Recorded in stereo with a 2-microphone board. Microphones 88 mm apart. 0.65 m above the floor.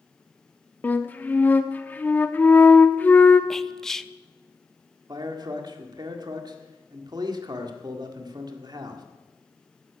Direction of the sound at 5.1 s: 55° right (ahead or behind).